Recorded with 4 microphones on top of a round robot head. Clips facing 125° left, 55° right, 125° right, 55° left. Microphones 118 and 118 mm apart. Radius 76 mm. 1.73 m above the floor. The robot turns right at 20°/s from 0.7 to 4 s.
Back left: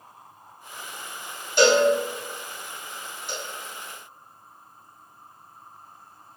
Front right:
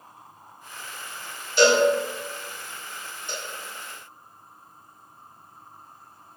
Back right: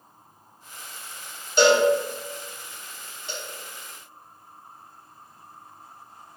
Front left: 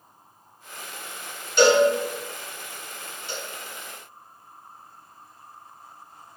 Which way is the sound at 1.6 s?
175° left.